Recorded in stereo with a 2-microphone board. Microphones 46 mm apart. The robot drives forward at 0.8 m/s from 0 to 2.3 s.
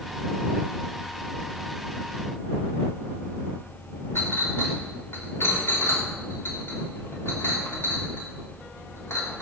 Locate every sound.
4.2 s a clink: 60° left (ahead or behind), 3 m